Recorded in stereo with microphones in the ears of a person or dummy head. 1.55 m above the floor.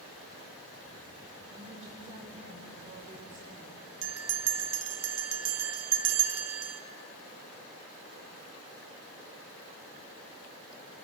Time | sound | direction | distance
1.5 | a woman speaking | 45° right (ahead or behind) | 5.5 m
4.0 | a bell | 70° right (ahead or behind) | 0.8 m